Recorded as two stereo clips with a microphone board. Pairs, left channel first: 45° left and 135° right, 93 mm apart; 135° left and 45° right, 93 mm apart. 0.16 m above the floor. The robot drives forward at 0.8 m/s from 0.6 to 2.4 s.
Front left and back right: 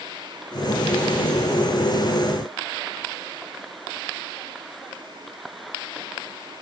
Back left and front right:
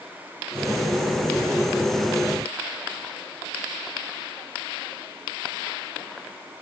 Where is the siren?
I don't hear a siren.